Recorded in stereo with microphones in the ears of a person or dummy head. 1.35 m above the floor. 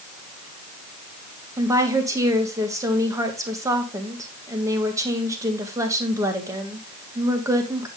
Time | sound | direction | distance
1.6 | a woman speaking | 15° right (ahead or behind) | 1.5 m